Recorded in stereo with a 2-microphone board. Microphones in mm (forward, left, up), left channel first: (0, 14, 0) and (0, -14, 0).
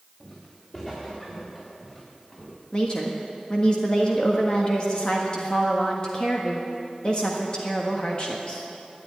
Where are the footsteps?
20° left (ahead or behind), 6 m; by 2.6 s 5° left (ahead or behind), 6.5 m.